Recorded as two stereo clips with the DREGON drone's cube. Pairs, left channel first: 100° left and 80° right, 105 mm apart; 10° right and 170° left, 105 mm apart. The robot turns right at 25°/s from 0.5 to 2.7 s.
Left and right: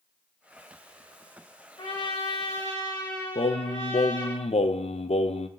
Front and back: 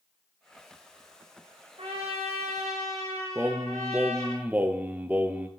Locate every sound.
1.8 s a trumpet: 145° left, 3 m; by 4.3 s 165° left, 3 m
3.4 s singing: 95° left, 0.7 m